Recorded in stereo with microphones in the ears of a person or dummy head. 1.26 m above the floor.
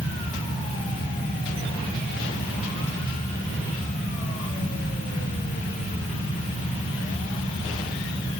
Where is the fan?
25° left (ahead or behind), 8.5 m.